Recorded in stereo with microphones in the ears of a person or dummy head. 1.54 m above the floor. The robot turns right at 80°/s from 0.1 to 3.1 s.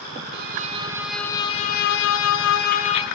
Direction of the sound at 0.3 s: 65° right.